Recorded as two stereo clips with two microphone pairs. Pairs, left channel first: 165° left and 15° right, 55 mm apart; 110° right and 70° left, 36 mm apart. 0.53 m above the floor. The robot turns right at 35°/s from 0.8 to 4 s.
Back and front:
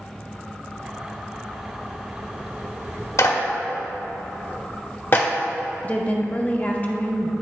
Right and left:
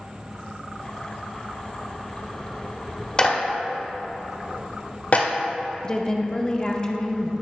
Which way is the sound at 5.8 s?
155° right.